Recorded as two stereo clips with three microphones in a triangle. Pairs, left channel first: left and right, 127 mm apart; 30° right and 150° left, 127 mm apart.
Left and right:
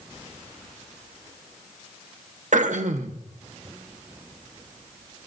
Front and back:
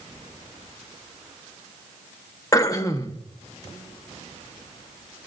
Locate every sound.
2.5 s throat clearing: 95° right, 1.0 m